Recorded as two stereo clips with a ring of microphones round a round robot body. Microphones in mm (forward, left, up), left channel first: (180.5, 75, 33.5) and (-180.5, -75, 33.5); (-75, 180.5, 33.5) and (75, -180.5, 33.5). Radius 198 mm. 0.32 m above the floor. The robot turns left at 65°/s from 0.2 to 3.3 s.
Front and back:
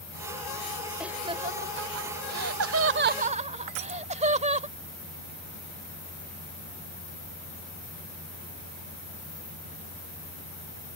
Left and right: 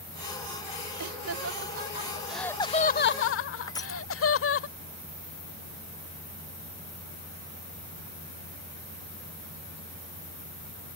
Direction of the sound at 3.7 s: 165° right.